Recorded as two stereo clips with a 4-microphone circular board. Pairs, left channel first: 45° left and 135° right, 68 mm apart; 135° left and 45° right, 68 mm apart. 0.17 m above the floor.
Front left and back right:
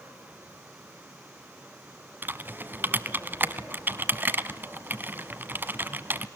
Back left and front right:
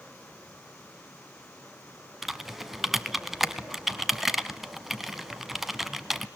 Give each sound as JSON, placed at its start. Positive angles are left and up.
{"t": 2.2, "sound": "typing on a keyboard", "azimuth_deg": -125, "distance_m": 0.8}